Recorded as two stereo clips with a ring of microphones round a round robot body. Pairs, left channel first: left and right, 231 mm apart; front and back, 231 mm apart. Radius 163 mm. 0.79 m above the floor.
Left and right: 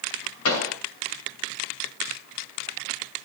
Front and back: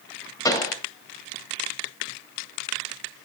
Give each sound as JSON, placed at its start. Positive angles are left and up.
{"t": 0.5, "sound": "a pop", "azimuth_deg": 75, "distance_m": 3.0}